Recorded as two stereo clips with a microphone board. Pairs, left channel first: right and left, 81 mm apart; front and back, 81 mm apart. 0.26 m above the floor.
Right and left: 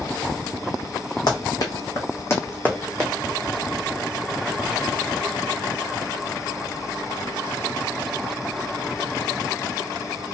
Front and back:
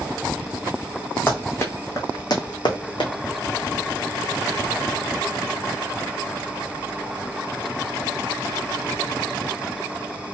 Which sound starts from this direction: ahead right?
Running footsteps, at 1.3 s.